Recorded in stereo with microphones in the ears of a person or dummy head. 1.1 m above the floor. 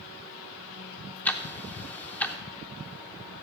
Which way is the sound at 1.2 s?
10° left (ahead or behind).